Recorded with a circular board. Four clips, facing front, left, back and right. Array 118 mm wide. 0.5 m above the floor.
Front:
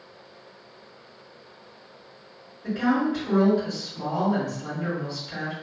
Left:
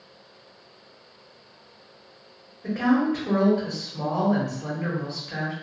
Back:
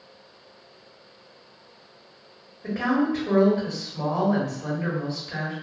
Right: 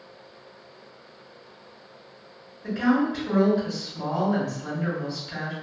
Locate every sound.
2.6 s a woman speaking: 130° left, 1.5 m